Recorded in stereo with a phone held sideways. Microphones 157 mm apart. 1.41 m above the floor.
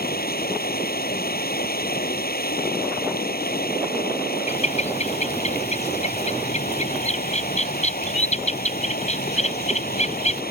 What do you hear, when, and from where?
0.0 s running water: 70° left (ahead or behind)
4.5 s a bird: 45° left (ahead or behind)